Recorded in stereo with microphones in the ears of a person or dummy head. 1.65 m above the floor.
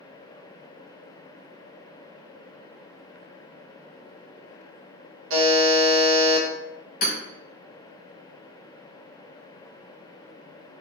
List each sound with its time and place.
5.3 s a buzzer: 65° right (ahead or behind), 0.7 m
7.0 s hammering: 45° left (ahead or behind), 0.7 m